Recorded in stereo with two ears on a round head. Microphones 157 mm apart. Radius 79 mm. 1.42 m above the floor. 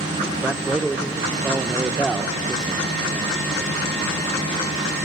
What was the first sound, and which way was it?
A man speaking, 5° right (ahead or behind).